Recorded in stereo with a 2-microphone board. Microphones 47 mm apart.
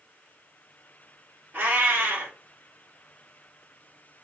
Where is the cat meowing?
45° right (ahead or behind), 1.3 m.